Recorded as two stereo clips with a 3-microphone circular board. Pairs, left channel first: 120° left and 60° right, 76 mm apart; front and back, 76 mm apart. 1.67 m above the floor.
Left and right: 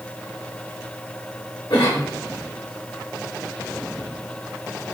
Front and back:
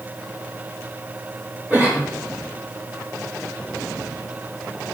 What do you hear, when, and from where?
1.7 s a cough: 105° left, 6.5 m